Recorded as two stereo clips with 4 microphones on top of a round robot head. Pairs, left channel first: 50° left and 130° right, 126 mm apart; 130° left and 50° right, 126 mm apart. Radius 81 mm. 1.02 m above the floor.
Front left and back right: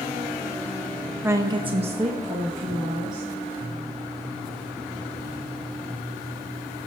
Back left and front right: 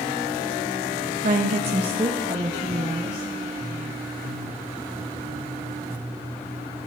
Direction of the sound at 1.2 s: 60° right.